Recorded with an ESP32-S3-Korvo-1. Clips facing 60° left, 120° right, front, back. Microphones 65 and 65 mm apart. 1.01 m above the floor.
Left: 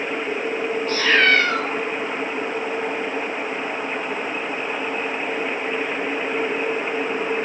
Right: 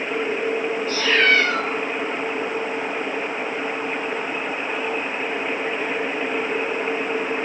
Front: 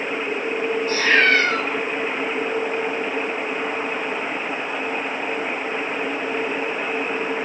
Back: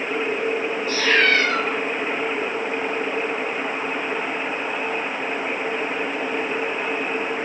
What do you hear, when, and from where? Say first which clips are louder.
0.9 s a cat meowing: left 2 dB, front 1 dB; 35° left, 1.4 m